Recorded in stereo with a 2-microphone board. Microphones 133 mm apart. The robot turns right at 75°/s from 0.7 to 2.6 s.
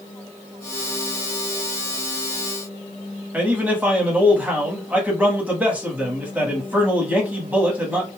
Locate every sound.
3.3 s a man speaking: 10° right (ahead or behind), 1.1 m